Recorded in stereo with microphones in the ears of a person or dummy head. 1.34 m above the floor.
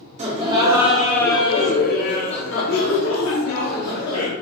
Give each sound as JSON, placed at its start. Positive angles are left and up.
{"t": 0.2, "sound": "laughter", "side_deg": -40, "distance_m": 0.9}